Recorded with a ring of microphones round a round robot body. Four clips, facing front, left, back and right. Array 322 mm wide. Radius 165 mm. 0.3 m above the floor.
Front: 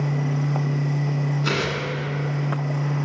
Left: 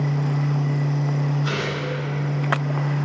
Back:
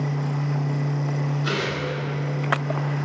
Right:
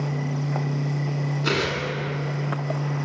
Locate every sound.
1.4 s tearing paper: 50° right, 1.3 m